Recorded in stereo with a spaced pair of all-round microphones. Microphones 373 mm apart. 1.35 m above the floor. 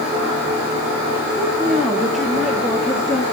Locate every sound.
1.4 s a woman speaking: centre (ahead or behind), 2.5 m